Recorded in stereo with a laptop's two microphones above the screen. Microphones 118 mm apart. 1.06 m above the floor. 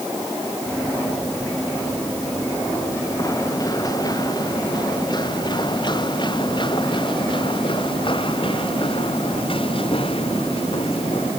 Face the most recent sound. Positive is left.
turn(degrees=50)  # may be behind; listen again after turning